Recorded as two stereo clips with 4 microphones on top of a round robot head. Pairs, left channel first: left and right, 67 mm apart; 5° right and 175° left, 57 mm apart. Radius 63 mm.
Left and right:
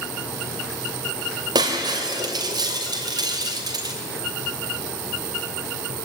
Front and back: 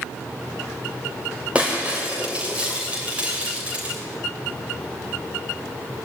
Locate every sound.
1.6 s breaking glass: 110° right, 2.5 m